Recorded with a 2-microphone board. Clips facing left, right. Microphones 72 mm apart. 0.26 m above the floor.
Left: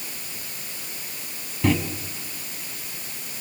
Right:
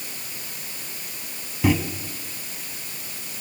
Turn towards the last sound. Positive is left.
turn(degrees=-5)  # may be behind; listen again after turning